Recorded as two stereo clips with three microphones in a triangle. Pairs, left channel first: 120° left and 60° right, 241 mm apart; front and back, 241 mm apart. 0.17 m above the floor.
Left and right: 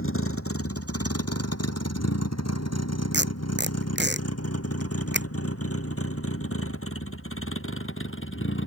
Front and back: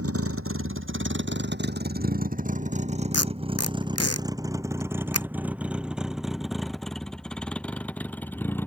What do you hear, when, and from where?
0.0 s a vehicle: 155° left; by 8.7 s 80° left
3.1 s tape being pulled: 15° right